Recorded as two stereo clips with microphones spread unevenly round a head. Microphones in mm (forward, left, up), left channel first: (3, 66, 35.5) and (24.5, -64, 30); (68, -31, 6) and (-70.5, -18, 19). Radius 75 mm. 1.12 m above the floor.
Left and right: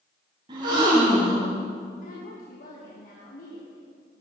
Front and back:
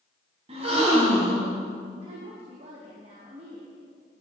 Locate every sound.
0.5 s a gasp: 140° right, 4 m
2.0 s a woman speaking: 125° left, 1.8 m